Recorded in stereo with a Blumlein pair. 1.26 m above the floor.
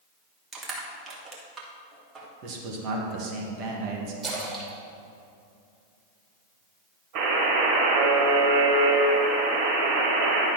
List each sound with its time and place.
0.5 s crushing: 20° right, 1.4 m
2.4 s a man speaking: 40° right, 1.5 m
4.2 s a splash: 15° right, 2.5 m
7.2 s a buzzer: 40° right, 2.5 m